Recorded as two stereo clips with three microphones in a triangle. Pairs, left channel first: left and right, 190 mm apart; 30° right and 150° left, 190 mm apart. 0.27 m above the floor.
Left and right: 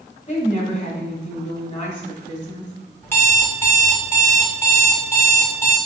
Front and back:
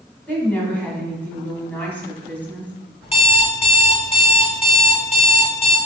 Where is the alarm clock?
15° left, 0.9 m.